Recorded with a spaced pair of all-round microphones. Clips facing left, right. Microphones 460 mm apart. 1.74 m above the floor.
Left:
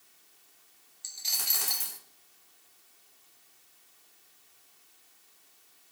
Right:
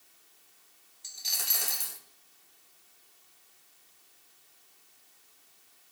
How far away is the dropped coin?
About 1.1 m.